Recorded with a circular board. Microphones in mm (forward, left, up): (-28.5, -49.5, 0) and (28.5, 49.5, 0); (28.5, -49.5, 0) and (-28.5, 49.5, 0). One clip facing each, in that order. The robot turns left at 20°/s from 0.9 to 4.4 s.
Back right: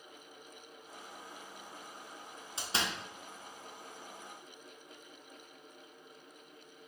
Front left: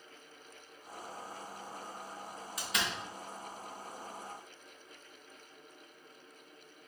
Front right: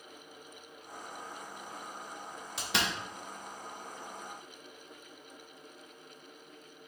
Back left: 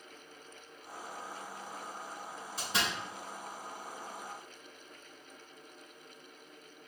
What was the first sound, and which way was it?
A door slam, 55° right.